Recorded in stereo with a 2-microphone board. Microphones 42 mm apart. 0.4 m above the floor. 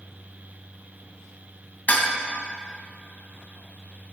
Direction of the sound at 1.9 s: 45° left (ahead or behind).